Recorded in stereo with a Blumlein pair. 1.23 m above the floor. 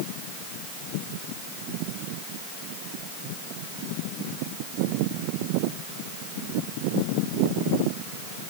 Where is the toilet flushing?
No toilet flushing in this recording.